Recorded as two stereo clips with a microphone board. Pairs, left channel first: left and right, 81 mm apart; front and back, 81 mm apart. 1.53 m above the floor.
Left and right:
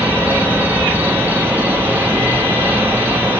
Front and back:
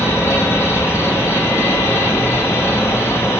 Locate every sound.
0.0 s an insect: 40° right, 1.0 m